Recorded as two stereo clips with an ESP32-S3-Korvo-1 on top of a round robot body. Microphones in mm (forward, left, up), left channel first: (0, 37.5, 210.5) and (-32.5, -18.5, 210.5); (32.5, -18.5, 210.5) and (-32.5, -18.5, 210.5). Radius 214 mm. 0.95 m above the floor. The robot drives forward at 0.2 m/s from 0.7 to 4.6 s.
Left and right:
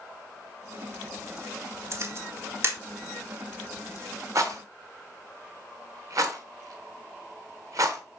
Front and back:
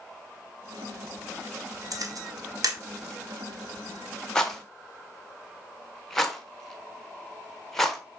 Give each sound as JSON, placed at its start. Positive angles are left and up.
{"t": 1.9, "sound": "a camera shutter", "azimuth_deg": -165, "distance_m": 1.0}
{"t": 4.3, "sound": "a rattle", "azimuth_deg": -80, "distance_m": 0.7}